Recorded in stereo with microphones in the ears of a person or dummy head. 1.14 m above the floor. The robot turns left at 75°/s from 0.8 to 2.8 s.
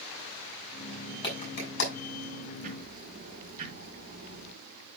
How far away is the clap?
About 5 m.